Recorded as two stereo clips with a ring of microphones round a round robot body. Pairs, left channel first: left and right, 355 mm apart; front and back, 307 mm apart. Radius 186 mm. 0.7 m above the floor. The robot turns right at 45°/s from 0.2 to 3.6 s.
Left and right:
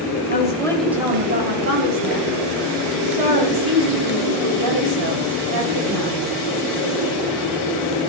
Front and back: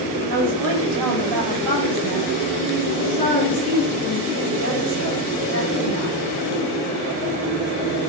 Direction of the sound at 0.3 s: 155° left.